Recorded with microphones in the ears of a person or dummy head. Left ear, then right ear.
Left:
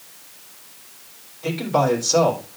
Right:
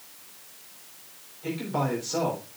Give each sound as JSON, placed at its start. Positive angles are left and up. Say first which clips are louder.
{"t": 1.4, "sound": "a man speaking", "louder": "left 9 dB", "side_deg": 10, "distance_m": 3.5}